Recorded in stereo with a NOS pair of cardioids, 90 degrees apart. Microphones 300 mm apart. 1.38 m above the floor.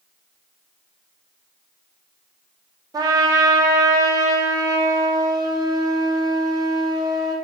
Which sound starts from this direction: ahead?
A trumpet, at 2.9 s.